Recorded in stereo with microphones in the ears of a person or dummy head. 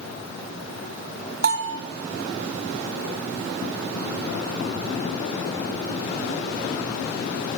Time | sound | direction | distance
1.4 | a bell | 65° right (ahead or behind) | 0.7 m